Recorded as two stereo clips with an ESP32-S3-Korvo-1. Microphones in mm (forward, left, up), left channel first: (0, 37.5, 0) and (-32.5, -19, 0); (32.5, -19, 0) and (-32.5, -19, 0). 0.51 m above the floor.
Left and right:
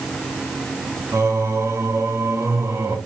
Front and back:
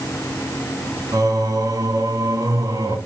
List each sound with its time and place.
1.1 s singing: 160° right, 2.5 m